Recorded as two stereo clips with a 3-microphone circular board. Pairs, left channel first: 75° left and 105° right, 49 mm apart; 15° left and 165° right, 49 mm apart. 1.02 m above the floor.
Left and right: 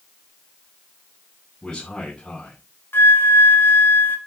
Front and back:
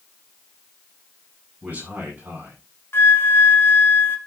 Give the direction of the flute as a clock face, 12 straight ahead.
11 o'clock.